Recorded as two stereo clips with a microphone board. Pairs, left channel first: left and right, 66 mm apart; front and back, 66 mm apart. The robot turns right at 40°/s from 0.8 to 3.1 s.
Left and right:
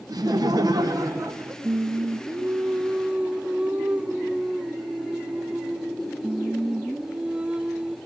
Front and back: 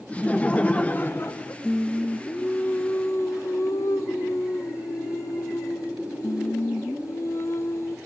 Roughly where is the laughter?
Right.